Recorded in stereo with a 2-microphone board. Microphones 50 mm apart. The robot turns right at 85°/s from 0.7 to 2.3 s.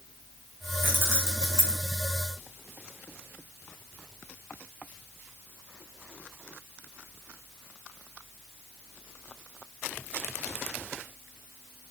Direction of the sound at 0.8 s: 35° right (ahead or behind).